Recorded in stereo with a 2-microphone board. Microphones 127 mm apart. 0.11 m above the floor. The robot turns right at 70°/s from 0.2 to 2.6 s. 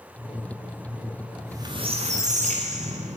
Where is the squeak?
165° right, 7.5 m; by 3.2 s 80° right, 7.5 m.